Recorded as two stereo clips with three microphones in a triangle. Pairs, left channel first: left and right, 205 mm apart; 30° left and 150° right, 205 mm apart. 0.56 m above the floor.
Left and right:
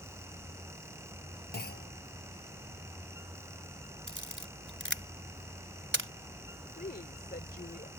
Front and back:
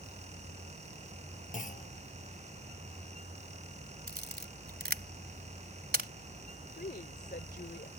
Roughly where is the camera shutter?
Right.